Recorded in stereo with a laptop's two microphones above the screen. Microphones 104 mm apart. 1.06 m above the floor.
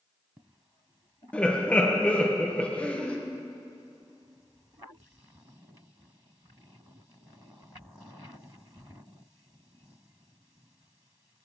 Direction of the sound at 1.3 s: 10° left (ahead or behind).